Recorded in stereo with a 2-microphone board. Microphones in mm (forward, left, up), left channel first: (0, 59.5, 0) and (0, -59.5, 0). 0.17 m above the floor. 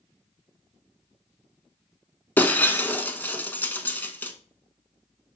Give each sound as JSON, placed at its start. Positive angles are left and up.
{"t": 2.4, "sound": "breaking glass", "side_deg": 15, "distance_m": 0.8}